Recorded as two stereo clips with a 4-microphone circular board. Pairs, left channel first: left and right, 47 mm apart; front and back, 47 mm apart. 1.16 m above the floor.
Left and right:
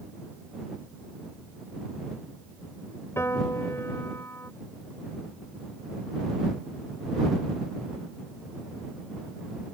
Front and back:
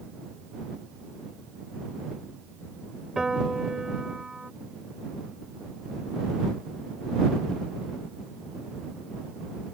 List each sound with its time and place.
3.2 s a piano: 105° left